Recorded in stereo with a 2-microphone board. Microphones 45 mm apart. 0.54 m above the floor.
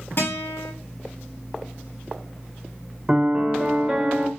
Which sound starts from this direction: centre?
A piano, at 3.1 s.